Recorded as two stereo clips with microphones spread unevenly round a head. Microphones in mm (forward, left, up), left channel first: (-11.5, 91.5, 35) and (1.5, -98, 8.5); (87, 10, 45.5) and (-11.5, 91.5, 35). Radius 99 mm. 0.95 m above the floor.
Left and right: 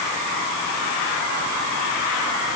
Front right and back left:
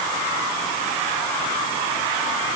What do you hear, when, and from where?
Only background noise.